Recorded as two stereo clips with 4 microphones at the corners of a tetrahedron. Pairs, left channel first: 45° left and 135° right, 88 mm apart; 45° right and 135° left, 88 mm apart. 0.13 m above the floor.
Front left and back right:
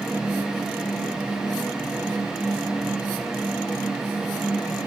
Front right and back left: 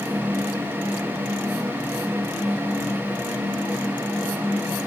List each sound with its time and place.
Only background noise.